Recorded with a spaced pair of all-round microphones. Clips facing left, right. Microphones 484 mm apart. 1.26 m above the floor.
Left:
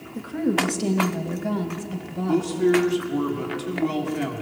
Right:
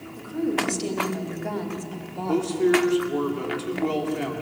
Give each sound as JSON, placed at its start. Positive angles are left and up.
{"t": 0.1, "sound": "a woman speaking", "side_deg": 80, "distance_m": 2.5}
{"t": 2.3, "sound": "a man speaking", "side_deg": 35, "distance_m": 3.0}